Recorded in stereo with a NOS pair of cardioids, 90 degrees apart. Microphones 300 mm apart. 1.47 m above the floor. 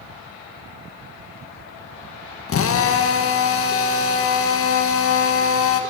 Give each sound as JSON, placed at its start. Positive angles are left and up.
{"t": 2.5, "sound": "a drill", "azimuth_deg": 50, "distance_m": 1.8}